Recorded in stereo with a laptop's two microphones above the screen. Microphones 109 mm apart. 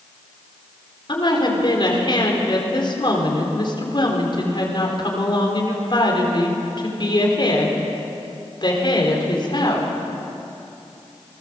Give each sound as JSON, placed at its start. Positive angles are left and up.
{"t": 1.1, "sound": "a woman speaking", "side_deg": 45, "distance_m": 4.0}